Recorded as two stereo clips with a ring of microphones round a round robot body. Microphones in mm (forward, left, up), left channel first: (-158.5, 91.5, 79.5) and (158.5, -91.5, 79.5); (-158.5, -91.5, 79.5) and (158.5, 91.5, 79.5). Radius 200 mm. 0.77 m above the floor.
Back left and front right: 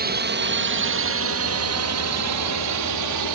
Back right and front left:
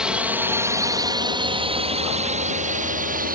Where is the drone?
55° right; by 3.4 s 30° right.